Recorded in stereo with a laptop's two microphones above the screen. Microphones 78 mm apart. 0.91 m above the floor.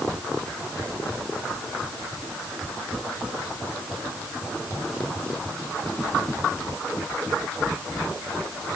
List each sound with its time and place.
Only background noise.